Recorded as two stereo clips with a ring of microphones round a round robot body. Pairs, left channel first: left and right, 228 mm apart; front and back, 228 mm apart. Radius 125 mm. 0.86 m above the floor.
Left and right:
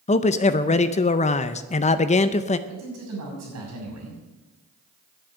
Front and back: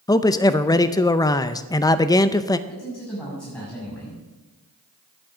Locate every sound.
0.1 s a man speaking: 60° left, 0.6 m
2.7 s a man speaking: 85° right, 7 m